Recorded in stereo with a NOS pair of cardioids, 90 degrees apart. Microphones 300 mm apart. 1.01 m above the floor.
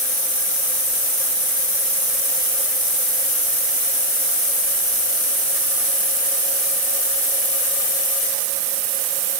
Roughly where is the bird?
No bird in this recording.